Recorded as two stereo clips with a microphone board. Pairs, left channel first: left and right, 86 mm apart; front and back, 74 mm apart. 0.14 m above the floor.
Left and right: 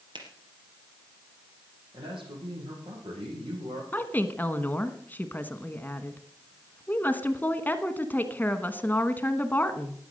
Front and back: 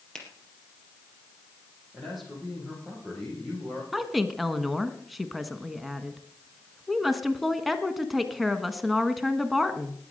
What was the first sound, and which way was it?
A finger snap, 80° right.